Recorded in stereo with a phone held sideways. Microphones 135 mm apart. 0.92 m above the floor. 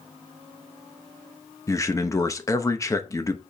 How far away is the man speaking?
About 0.9 m.